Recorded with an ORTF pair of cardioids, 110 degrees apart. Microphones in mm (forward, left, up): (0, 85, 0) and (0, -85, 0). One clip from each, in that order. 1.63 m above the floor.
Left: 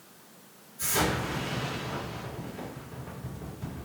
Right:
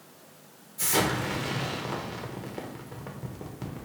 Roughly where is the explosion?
Right.